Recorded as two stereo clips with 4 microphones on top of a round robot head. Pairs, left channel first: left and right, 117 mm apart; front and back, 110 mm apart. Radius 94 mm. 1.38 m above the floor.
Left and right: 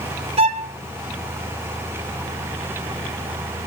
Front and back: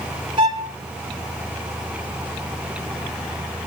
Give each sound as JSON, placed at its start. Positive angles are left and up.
{"t": 0.4, "sound": "a violin", "azimuth_deg": -115, "distance_m": 1.8}